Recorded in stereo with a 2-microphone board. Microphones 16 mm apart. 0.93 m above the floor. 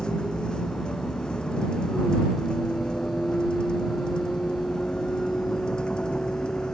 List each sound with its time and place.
0.0 s a vehicle: 65° left (ahead or behind)